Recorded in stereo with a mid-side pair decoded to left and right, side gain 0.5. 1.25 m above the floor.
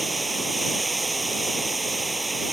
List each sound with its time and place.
0.0 s running water: 10° right